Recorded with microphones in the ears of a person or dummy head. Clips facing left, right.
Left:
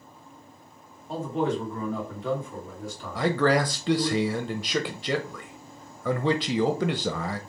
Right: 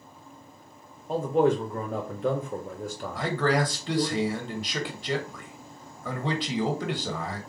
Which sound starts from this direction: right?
A man speaking, at 1.1 s.